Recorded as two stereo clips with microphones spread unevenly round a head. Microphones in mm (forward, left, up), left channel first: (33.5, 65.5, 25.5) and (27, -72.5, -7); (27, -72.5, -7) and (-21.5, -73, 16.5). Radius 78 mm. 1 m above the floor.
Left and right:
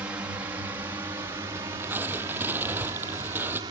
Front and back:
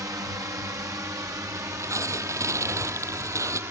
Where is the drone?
165° right; by 3.7 s 155° right.